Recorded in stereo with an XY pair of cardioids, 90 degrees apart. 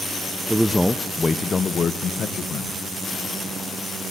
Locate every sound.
0.5 s a man speaking: 5° right, 1.1 m; by 2.8 s 75° left, 1.8 m